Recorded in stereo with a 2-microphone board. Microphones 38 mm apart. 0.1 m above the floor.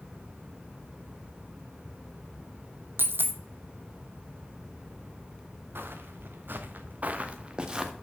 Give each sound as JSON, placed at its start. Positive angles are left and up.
{"t": 3.0, "sound": "a dropped coin", "side_deg": -75, "distance_m": 0.7}
{"t": 5.8, "sound": "footsteps", "side_deg": -75, "distance_m": 1.6}